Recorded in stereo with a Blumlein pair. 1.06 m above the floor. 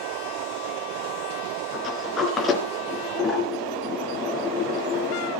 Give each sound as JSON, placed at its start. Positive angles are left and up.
{"t": 1.7, "sound": "a sliding door", "azimuth_deg": 20, "distance_m": 4.0}